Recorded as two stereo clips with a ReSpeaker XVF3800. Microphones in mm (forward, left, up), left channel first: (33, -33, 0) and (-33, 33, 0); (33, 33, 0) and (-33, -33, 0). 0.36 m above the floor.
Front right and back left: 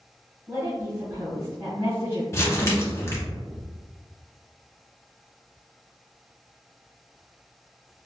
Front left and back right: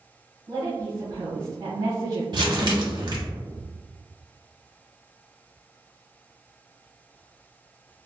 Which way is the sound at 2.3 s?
105° right.